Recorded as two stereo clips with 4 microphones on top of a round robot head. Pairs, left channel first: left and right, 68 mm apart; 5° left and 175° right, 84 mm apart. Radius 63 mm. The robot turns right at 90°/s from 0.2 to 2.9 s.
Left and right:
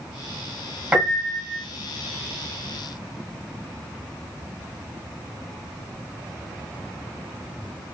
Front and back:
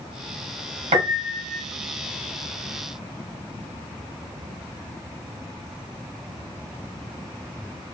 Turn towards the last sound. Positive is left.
turn(degrees=10)